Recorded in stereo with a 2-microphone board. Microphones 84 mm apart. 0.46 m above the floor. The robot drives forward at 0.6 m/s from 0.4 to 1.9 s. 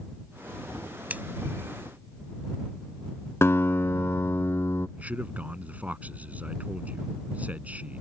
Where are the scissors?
20° right (ahead or behind).